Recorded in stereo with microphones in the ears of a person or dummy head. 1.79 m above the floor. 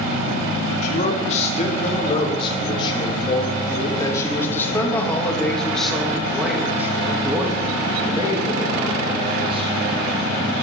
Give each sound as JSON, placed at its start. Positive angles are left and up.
{"t": 0.8, "sound": "a man speaking", "side_deg": 40, "distance_m": 4.0}